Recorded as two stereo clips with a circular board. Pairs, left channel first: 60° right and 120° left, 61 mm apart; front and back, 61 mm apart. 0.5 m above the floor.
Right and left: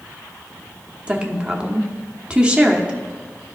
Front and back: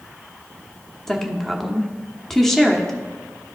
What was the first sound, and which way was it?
A woman speaking, 75° left.